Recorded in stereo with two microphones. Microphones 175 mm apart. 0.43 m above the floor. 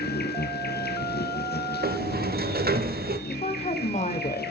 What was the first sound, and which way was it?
An insect, 65° left (ahead or behind).